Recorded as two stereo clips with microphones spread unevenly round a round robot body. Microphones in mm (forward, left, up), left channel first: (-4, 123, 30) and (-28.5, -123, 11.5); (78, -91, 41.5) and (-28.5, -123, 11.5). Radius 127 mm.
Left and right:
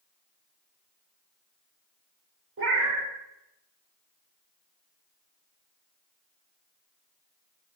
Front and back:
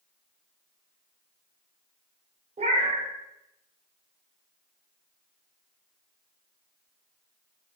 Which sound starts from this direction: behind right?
A cat meowing, at 2.6 s.